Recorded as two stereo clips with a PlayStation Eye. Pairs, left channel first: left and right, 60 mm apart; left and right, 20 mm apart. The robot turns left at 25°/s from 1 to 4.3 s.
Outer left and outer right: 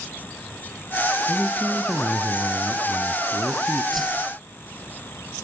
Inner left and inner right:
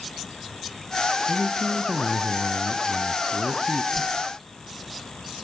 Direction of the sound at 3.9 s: Centre (ahead or behind).